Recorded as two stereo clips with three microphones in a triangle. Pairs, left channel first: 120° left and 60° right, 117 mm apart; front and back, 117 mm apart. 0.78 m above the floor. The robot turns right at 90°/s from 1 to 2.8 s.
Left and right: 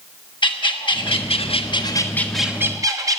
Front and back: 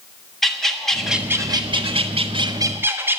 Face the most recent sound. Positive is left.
turn(degrees=-110)